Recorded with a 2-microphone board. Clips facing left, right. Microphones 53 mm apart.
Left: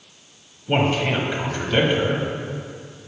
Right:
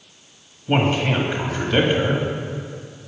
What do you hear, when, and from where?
0.7 s a man speaking: 10° right (ahead or behind), 1.3 m